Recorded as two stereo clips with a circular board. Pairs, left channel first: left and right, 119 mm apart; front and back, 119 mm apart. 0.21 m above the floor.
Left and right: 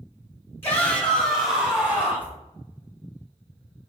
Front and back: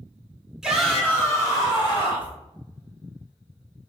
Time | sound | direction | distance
0.6 | a shout | 100° left | 1.0 m